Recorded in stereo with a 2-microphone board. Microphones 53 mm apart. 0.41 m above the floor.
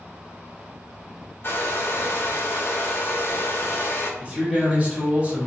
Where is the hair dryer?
45° left (ahead or behind), 0.5 m.